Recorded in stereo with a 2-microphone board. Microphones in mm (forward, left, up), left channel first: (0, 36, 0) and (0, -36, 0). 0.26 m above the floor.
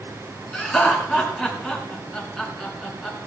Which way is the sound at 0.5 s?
10° left (ahead or behind).